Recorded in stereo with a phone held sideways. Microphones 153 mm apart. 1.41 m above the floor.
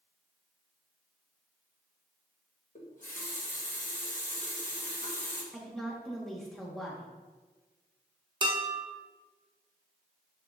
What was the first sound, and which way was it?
A running tap, 55° left (ahead or behind).